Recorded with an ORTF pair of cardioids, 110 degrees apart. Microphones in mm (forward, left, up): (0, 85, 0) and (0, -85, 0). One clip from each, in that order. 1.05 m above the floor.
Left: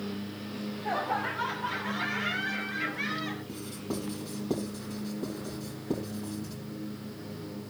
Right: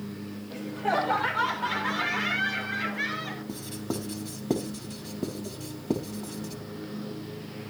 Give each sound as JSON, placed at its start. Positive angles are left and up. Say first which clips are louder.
{"t": 0.5, "sound": "laughter", "louder": "right 6 dB", "azimuth_deg": -65, "distance_m": 4.0}
{"t": 3.5, "sound": "writing", "louder": "right 2 dB", "azimuth_deg": -35, "distance_m": 4.5}